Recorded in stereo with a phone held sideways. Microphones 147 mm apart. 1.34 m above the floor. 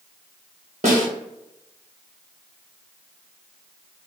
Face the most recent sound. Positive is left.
turn(degrees=-55)  # may be behind; listen again after turning